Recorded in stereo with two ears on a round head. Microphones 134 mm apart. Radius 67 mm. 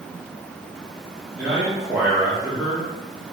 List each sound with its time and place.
1.4 s a man speaking: centre (ahead or behind), 1.0 m